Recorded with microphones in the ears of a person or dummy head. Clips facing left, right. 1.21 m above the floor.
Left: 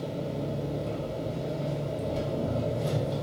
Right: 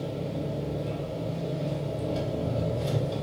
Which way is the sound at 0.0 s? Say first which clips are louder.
Even; 5° right (ahead or behind).